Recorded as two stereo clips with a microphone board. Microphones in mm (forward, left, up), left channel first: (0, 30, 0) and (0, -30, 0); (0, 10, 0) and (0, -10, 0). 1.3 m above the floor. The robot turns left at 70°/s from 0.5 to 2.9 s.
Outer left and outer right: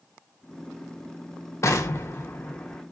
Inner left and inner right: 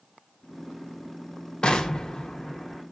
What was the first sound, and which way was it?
An explosion, 95° left.